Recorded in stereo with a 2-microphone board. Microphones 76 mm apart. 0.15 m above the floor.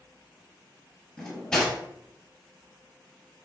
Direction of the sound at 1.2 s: 10° left (ahead or behind).